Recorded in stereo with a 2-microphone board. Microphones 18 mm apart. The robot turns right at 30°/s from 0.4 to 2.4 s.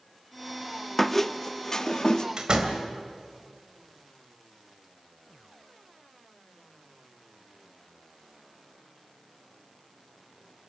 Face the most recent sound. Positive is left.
turn(degrees=-50)  # may be behind; listen again after turning